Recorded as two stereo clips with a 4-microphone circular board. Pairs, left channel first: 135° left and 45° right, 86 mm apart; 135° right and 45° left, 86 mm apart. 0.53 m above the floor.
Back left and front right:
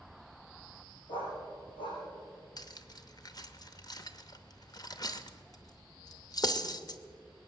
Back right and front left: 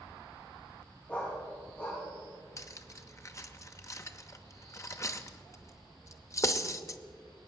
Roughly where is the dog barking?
Behind left.